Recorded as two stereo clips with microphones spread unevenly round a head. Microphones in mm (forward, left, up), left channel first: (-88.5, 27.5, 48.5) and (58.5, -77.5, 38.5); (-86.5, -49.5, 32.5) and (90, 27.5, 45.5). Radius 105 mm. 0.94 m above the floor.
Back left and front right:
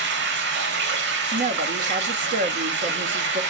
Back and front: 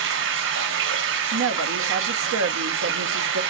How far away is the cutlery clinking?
No cutlery clinking in this recording.